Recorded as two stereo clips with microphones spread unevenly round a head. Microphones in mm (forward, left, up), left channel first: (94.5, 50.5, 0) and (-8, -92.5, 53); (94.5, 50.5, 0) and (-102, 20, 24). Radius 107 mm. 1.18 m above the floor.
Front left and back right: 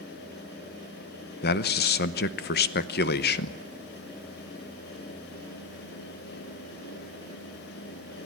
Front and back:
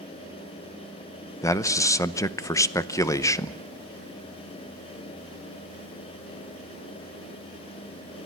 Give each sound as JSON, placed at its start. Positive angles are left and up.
{"t": 1.4, "sound": "a man speaking", "azimuth_deg": 85, "distance_m": 0.8}